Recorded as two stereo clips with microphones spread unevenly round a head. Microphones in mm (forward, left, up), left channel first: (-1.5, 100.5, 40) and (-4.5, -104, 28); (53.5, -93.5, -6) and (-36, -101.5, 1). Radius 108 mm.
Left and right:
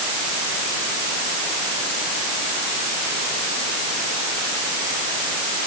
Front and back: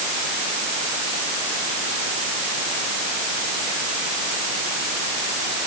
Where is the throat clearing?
No throat clearing in this recording.